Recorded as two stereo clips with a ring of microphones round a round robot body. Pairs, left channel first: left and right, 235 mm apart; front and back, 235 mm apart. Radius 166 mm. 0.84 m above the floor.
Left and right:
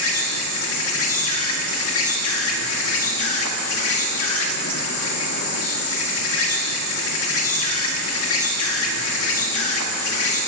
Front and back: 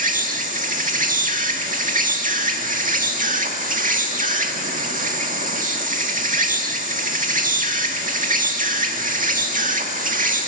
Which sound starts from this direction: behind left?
An insect, at 0.0 s.